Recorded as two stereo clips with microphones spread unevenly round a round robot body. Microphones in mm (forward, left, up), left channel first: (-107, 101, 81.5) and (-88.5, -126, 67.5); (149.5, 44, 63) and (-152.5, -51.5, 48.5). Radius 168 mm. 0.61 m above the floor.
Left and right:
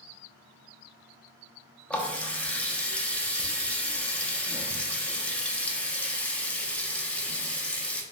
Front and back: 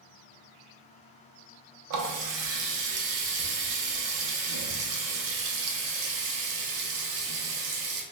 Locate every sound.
1.9 s a running tap: straight behind, 0.6 m